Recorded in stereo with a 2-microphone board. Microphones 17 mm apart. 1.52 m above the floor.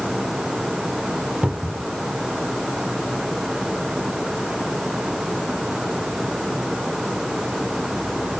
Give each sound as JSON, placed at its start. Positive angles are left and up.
{"t": 1.4, "sound": "a cupboard door", "side_deg": -65}